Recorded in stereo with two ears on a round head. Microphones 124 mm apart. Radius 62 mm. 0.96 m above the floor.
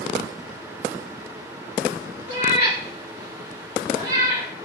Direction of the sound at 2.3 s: 65° right (ahead or behind).